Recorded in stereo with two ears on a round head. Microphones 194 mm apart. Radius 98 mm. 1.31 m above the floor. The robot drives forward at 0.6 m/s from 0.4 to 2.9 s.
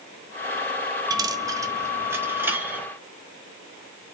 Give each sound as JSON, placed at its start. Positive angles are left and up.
{"t": 1.1, "sound": "a dropped coin", "side_deg": -20, "distance_m": 0.6}